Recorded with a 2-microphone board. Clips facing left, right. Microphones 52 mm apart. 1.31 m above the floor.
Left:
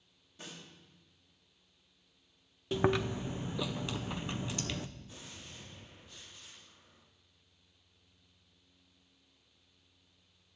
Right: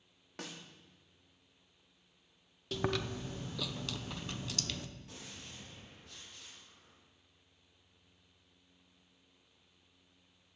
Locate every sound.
0.4 s a snare drum: 85° right, 3 m
2.7 s chewing: 20° left (ahead or behind), 0.8 m
5.1 s a gunshot: 80° right, 9.5 m